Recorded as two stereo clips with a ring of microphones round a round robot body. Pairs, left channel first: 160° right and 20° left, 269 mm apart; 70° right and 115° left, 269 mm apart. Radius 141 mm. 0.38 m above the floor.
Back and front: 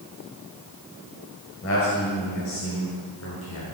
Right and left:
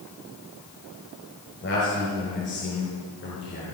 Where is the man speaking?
115° right, 7.5 m; by 3.6 s 120° right, 6.5 m.